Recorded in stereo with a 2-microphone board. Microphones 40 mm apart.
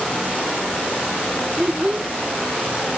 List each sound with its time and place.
1.6 s a child speaking: 20° right (ahead or behind), 1.2 m